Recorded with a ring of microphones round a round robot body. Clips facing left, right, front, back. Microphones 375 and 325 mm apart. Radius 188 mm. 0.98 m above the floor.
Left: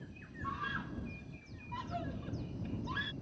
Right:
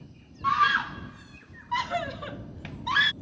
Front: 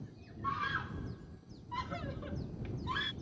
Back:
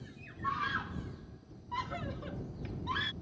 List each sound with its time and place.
0.4 s a scream: 90° right